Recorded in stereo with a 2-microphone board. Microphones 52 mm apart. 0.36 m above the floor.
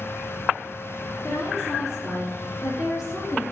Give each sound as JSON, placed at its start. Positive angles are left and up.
{"t": 1.2, "sound": "a woman speaking", "side_deg": 80, "distance_m": 5.0}